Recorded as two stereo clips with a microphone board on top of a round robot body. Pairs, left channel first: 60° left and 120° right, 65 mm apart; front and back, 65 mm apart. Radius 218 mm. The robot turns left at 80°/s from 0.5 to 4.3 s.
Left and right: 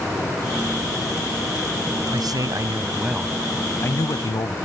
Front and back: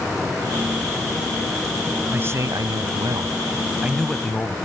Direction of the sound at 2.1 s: 120° right.